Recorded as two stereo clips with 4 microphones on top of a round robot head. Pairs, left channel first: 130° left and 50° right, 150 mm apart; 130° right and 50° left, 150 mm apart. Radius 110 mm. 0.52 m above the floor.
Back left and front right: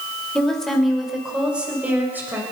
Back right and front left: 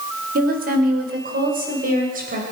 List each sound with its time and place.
0.3 s a woman speaking: 45° left, 2 m; by 2.4 s 25° left, 3 m